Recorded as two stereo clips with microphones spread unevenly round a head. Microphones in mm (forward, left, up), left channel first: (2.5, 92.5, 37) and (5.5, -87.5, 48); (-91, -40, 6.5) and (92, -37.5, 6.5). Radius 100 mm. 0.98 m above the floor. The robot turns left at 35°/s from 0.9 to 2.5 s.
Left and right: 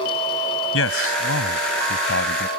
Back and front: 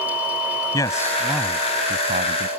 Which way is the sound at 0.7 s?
105° left.